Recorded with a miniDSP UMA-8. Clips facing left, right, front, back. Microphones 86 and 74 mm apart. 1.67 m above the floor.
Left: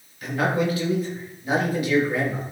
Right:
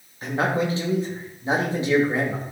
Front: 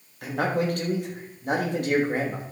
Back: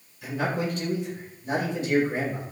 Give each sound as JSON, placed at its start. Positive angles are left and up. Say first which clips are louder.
{"t": 0.2, "sound": "a man speaking", "louder": "even, front 3 dB", "azimuth_deg": -30, "distance_m": 3.5}